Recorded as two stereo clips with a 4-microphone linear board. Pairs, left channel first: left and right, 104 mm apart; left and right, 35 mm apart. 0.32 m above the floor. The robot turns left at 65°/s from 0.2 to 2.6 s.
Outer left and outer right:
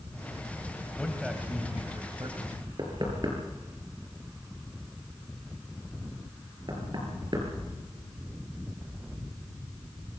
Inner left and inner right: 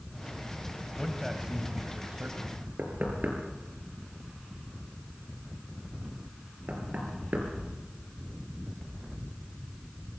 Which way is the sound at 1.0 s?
10° left.